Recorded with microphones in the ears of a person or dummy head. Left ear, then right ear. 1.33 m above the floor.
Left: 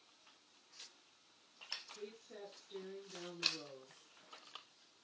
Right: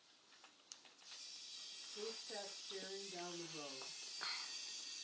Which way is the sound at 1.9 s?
50° right (ahead or behind).